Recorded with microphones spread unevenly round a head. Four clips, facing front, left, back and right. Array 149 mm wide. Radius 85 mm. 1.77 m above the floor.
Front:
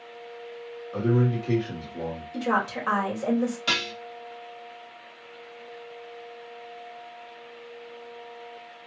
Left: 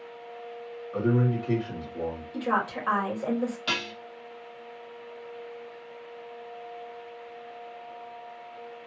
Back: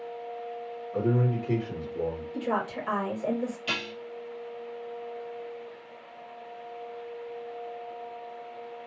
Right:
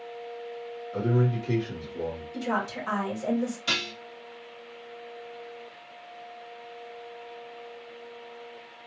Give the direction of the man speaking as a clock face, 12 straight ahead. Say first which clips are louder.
Left 1 dB, front 2 dB; 11 o'clock.